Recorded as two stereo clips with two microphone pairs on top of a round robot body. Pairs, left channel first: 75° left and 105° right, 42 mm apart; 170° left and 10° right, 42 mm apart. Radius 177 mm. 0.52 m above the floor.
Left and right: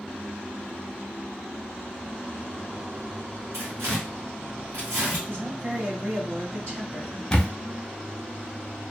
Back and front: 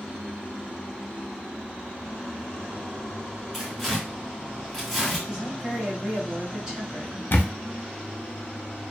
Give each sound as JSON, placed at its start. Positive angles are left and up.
{"t": 3.5, "sound": "tearing paper", "azimuth_deg": -105, "distance_m": 1.7}
{"t": 5.3, "sound": "a woman speaking", "azimuth_deg": -90, "distance_m": 1.9}
{"t": 7.3, "sound": "a camera shutter", "azimuth_deg": 135, "distance_m": 0.6}